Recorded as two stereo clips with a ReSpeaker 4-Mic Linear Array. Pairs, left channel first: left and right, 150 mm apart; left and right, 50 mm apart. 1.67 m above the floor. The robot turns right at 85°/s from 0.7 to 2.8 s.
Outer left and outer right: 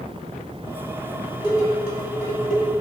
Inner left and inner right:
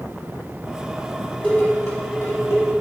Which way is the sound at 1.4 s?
25° left (ahead or behind).